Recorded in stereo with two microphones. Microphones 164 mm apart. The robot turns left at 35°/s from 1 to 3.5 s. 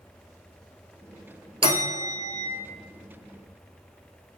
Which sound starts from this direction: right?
A bell, at 1.6 s.